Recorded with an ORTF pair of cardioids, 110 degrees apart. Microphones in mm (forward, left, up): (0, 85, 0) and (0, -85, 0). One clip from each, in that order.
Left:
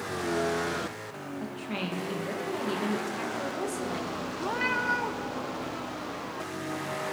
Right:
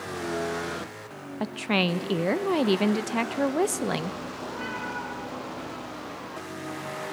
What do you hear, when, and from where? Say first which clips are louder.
1.4 s a woman speaking: right 11 dB; 65° right, 0.6 m
4.4 s a cat meowing: left 7 dB; 50° left, 1.1 m